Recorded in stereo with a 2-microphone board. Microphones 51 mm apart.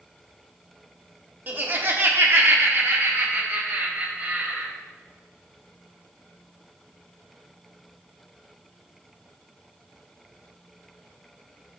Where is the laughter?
35° right (ahead or behind), 1.2 m; by 4.7 s 30° right (ahead or behind), 2 m.